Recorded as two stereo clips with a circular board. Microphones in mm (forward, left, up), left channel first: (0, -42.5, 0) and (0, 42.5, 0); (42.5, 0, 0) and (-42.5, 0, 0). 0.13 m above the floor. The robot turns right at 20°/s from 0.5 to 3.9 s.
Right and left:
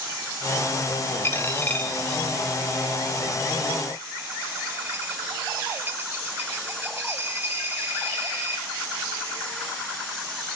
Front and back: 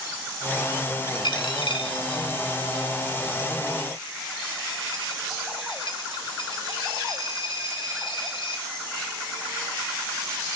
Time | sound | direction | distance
1.2 | a dropped coin | 30° right | 1.6 m